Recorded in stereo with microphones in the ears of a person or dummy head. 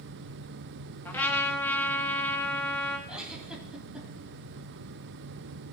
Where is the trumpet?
15° left (ahead or behind), 1.3 m.